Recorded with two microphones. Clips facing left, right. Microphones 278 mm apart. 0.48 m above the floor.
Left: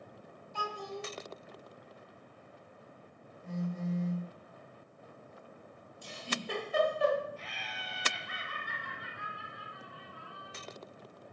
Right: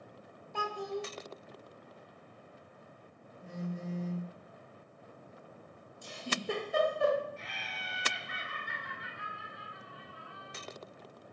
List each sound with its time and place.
0.5 s a child speaking: 60° right (ahead or behind), 0.6 m
3.4 s a phone buzzing: 35° right (ahead or behind), 0.7 m
6.0 s a giggle: 50° right (ahead or behind), 1.0 m
7.4 s laughter: 25° right (ahead or behind), 1.0 m